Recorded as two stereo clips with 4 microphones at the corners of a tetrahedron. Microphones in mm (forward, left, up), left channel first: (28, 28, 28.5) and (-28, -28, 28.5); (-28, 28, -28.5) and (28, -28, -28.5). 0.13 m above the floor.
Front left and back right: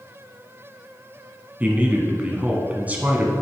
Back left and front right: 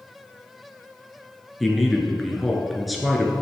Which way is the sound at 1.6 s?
135° right.